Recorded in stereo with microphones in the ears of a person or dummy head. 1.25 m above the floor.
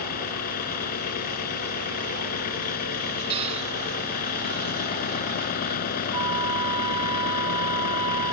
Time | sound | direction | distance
0.0 | an engine running | 45° left (ahead or behind) | ?
3.3 | a cupboard door | 30° right (ahead or behind) | ?
6.1 | a flute | 30° right (ahead or behind) | ?